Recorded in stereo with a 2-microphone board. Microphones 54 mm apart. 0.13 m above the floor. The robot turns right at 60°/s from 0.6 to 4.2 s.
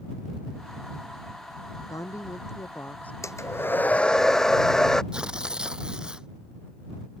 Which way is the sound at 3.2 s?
110° left.